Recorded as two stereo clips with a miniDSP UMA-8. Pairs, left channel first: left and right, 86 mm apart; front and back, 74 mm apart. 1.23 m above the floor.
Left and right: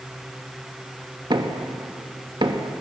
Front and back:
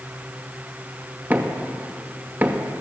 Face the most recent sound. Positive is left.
turn(degrees=-115)